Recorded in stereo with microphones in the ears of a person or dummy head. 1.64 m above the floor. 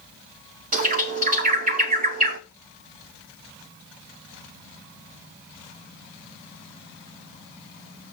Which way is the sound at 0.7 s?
40° right (ahead or behind).